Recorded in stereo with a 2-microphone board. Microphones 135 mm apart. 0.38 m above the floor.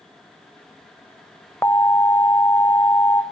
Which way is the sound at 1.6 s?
20° left (ahead or behind).